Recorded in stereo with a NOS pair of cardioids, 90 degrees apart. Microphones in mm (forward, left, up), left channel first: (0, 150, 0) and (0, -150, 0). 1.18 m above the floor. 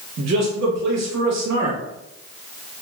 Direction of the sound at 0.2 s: 60° right.